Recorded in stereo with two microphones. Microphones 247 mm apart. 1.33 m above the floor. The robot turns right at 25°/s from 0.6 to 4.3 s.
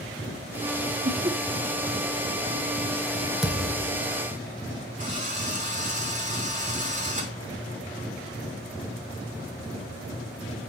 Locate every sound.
1.1 s laughter: 40° right (ahead or behind), 3 m; by 1.4 s 30° right (ahead or behind), 3 m
3.4 s a thud: centre (ahead or behind), 3 m; by 4.0 s 15° left (ahead or behind), 3 m
5.0 s a drill: 30° right (ahead or behind), 6.5 m